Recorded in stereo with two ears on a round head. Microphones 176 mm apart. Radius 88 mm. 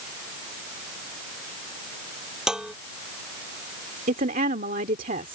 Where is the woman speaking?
40° right (ahead or behind).